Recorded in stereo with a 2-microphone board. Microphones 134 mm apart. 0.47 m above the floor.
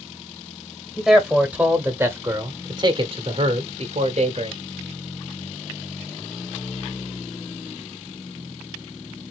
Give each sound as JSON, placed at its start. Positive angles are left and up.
{"t": 1.0, "sound": "a man speaking", "side_deg": 0, "distance_m": 1.8}